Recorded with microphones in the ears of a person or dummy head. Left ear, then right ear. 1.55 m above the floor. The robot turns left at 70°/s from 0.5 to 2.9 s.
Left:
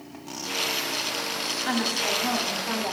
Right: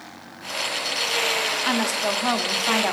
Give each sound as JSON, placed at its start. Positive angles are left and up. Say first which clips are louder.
{"t": 1.6, "sound": "a woman speaking", "louder": "right 3 dB", "azimuth_deg": -20, "distance_m": 0.8}